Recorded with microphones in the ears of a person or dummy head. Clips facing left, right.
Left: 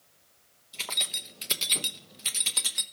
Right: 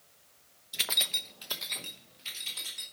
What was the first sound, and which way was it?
Keys jangling, 15° right (ahead or behind).